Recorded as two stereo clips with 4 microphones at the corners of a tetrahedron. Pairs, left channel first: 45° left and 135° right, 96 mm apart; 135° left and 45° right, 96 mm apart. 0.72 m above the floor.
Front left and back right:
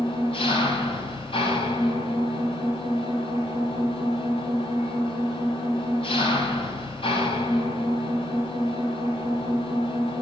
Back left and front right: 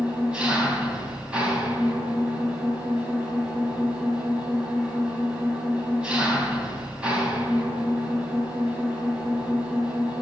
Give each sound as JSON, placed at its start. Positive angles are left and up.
{"t": 0.0, "sound": "an engine running", "azimuth_deg": 35, "distance_m": 4.0}